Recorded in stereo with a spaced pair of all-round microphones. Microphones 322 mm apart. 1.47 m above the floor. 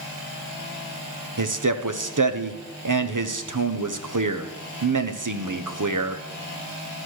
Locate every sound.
1.4 s a man speaking: 70° right (ahead or behind), 0.8 m